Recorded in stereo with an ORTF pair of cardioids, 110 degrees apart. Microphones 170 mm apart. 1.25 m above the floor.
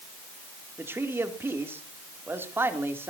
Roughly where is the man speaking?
Ahead.